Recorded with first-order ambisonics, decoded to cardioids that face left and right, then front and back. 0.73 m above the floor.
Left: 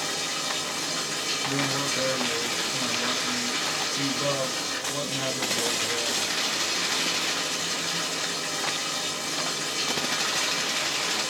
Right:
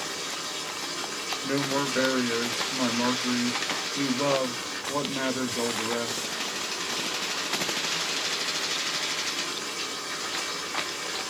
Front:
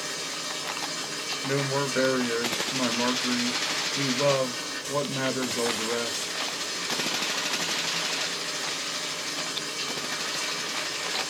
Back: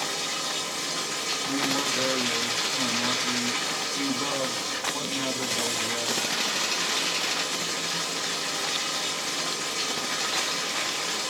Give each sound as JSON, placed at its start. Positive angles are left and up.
{"t": 0.0, "sound": "running water", "azimuth_deg": 120, "distance_m": 1.1}
{"t": 1.4, "sound": "a man speaking", "azimuth_deg": -45, "distance_m": 0.7}